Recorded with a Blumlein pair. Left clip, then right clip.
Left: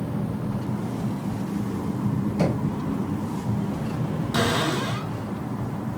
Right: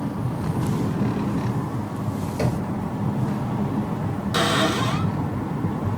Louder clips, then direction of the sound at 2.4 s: Left 1 dB; 20° right.